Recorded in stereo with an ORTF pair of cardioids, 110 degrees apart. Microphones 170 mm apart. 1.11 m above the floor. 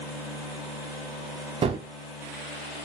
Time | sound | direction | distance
1.6 | a gunshot | 35° right | 0.6 m